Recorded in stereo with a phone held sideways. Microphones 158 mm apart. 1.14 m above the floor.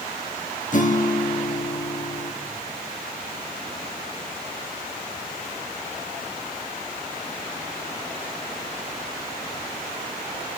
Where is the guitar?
55° left (ahead or behind), 1.2 m.